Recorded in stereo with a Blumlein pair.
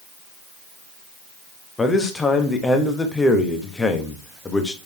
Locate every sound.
1.8 s a man speaking: 10° left, 1.2 m